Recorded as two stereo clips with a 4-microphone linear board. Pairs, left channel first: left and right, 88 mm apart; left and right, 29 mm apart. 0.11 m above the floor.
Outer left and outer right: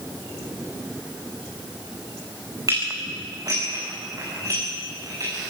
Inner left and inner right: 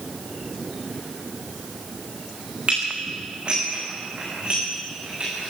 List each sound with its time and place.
2.7 s dishes clattering: 45° right (ahead or behind), 7.5 m